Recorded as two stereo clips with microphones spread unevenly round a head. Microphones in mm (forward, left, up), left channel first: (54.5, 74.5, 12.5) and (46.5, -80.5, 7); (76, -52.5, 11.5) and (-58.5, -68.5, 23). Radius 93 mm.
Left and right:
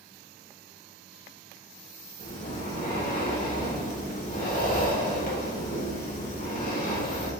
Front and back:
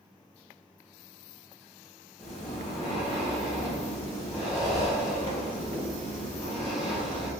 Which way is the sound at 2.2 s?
70° left.